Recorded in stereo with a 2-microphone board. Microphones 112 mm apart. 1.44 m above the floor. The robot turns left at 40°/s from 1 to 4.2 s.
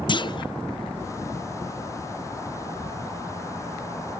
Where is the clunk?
45° left (ahead or behind), 0.5 m.